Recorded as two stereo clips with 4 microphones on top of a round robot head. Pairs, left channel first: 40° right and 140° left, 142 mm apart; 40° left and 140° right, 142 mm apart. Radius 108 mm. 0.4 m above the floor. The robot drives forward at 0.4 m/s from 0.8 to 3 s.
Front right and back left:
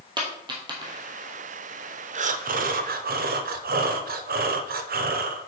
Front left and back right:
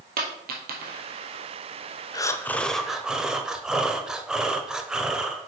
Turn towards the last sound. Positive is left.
turn(degrees=135)